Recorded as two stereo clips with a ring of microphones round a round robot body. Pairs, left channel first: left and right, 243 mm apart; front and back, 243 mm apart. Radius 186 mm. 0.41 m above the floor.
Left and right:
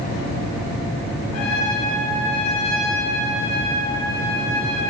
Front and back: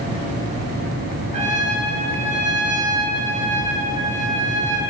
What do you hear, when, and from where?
1.3 s a trumpet: 115° left, 6 m